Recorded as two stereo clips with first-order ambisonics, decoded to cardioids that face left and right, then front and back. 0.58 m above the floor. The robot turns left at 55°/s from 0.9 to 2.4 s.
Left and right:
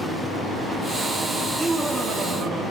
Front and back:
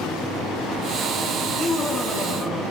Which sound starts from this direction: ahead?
Laughter, at 1.4 s.